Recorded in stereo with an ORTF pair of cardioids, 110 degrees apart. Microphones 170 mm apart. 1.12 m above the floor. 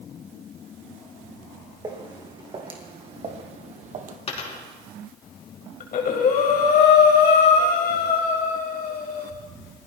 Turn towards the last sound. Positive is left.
turn(degrees=55)